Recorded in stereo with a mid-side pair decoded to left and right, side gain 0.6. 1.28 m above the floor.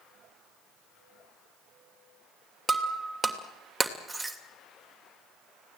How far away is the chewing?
I don't hear chewing.